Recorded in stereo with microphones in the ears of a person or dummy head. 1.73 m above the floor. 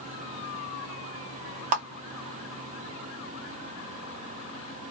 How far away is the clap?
About 0.7 m.